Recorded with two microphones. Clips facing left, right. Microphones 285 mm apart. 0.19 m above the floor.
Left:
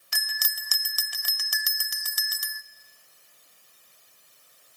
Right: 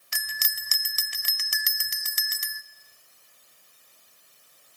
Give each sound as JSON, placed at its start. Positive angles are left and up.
{"t": 0.1, "sound": "a bell", "side_deg": -30, "distance_m": 0.5}